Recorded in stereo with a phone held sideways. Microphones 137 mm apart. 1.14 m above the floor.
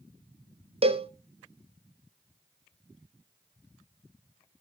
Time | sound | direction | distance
0.8 | a cowbell | 45° right (ahead or behind) | 0.6 m